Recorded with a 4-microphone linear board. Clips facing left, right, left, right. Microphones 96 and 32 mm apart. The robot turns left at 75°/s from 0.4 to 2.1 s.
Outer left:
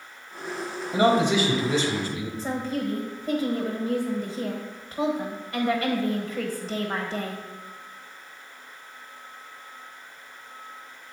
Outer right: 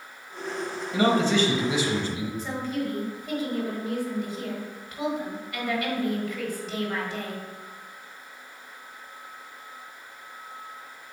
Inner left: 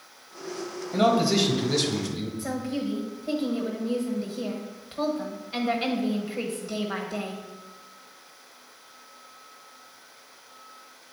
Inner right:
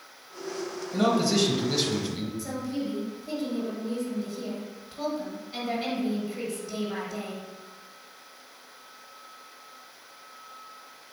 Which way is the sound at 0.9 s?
50° left.